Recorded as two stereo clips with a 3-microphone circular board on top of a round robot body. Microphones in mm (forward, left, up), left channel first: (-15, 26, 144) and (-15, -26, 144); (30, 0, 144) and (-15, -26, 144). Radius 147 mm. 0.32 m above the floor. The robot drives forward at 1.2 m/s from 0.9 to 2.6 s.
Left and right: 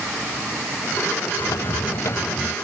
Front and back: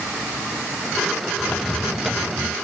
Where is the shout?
No shout in this recording.